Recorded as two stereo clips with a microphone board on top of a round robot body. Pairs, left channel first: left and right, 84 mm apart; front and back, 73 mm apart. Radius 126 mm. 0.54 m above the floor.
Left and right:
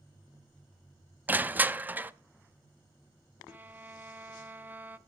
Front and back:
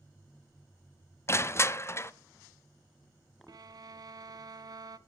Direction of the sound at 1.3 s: 30° right.